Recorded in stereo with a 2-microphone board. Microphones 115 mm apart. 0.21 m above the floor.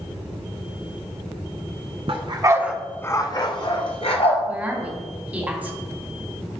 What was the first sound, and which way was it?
A dog barking, 55° right (ahead or behind).